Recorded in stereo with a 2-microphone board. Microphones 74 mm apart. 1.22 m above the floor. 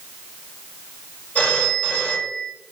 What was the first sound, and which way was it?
A phone ringing, 25° left (ahead or behind).